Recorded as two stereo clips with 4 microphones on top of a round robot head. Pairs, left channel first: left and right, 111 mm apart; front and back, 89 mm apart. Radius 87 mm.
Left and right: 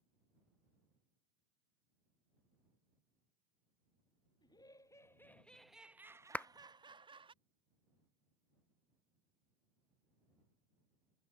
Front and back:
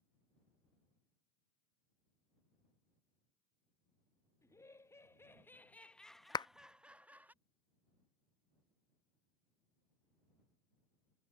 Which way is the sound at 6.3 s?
15° left.